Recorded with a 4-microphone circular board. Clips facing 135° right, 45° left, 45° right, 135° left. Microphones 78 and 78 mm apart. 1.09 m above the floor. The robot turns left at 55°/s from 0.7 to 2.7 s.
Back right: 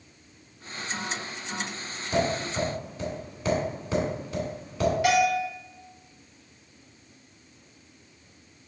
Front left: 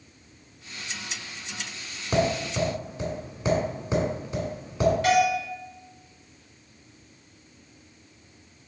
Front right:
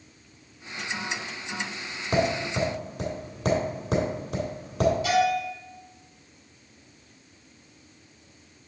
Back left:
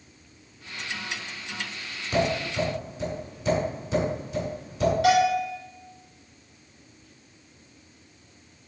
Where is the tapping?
5° left, 2.5 m; by 4.9 s 30° right, 2.5 m.